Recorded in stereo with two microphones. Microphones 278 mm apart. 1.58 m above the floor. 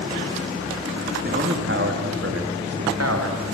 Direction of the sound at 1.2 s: 40° right (ahead or behind).